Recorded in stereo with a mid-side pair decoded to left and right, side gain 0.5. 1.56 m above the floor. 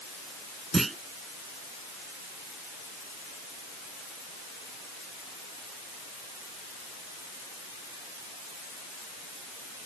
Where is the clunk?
20° right.